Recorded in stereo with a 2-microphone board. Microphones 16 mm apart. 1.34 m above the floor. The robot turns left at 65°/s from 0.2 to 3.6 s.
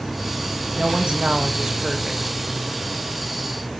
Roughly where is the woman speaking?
Right.